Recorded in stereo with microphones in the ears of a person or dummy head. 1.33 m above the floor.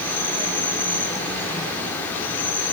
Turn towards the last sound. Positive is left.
turn(degrees=10)  # may be behind; listen again after turning